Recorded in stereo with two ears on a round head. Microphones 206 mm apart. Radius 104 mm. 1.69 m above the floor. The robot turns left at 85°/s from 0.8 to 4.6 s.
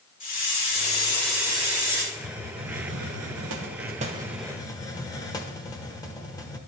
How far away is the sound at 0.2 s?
About 2 m.